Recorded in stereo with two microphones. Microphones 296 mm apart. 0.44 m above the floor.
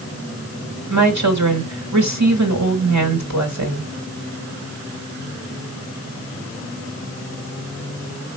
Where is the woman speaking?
65° right (ahead or behind), 3 m.